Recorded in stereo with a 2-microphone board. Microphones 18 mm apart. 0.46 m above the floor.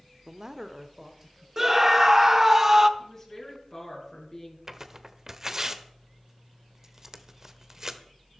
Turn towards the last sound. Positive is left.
turn(degrees=-25)  # may be behind; listen again after turning